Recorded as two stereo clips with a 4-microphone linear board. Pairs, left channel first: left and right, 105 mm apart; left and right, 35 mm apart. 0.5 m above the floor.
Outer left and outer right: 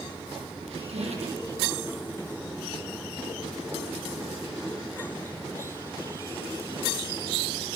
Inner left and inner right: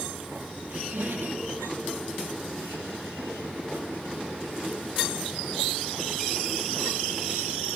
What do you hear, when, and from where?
0.7 s a squeak: 85° right, 7 m